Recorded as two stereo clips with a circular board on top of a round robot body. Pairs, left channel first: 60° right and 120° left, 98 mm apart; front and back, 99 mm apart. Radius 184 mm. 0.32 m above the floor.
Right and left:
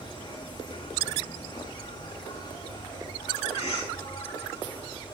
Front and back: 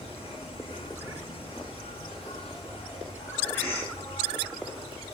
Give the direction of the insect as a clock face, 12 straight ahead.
1 o'clock.